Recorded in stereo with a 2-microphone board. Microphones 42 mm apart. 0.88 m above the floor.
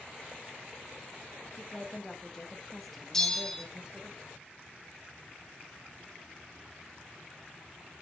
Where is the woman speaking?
25° left (ahead or behind), 1.7 m; by 4.1 s 30° right (ahead or behind), 1.3 m.